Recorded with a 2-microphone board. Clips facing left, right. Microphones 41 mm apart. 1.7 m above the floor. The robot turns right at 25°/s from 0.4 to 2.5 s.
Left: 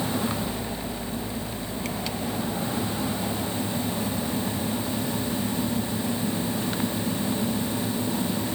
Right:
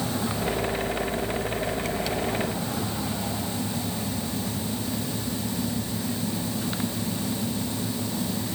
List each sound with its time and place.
Only background noise.